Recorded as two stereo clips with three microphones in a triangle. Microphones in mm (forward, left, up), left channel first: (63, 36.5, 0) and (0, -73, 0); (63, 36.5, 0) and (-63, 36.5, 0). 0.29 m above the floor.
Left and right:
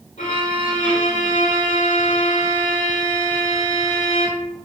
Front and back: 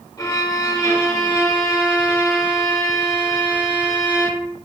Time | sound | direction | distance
0.2 | a violin | 60° left | 0.7 m